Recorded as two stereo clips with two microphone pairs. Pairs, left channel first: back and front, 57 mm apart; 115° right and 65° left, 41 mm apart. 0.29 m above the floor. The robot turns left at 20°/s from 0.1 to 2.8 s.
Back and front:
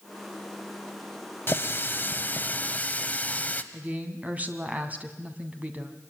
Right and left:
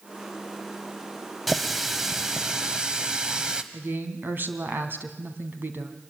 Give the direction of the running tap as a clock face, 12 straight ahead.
7 o'clock.